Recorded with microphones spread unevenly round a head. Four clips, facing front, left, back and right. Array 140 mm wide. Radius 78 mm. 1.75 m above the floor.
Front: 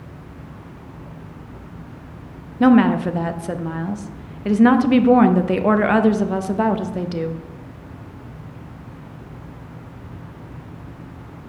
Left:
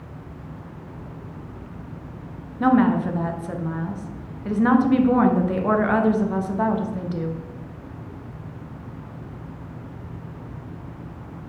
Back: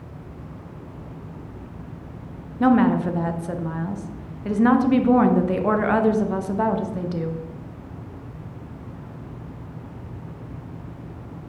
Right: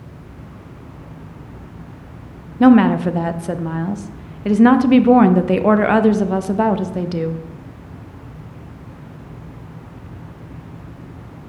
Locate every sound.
2.6 s a woman speaking: 65° right, 0.5 m